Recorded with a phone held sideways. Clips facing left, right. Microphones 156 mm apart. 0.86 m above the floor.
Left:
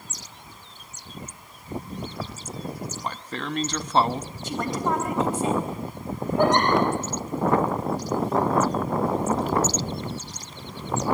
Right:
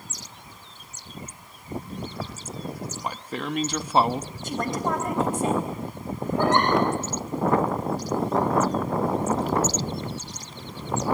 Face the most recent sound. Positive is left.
turn(degrees=15)  # may be behind; listen again after turning